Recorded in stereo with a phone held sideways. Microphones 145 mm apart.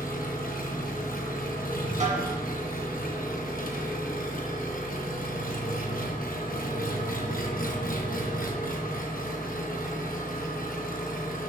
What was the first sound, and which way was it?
An engine running, 75° left (ahead or behind).